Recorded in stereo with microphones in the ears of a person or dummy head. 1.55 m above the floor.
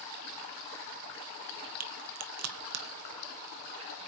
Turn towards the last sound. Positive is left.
turn(degrees=-80)